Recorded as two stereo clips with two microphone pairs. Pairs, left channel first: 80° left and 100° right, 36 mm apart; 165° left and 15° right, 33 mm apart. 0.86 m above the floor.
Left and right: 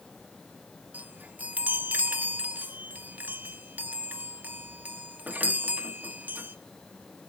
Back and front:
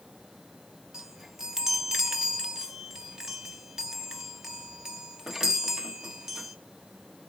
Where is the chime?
85° right, 1.3 m.